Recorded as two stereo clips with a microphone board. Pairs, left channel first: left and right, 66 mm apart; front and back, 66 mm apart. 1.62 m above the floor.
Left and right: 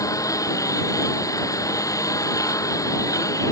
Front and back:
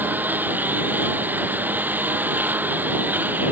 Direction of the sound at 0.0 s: 120° left.